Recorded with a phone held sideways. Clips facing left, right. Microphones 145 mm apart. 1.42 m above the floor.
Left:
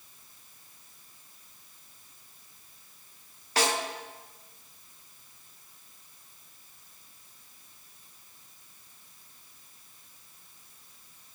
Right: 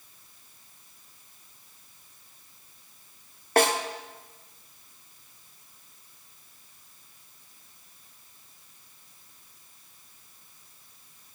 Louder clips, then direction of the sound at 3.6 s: Right 6 dB; 50° right (ahead or behind).